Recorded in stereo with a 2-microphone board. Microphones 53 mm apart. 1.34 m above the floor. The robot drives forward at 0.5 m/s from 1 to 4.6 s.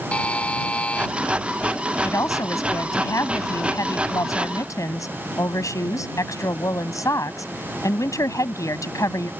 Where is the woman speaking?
80° left; by 9.3 s 85° left.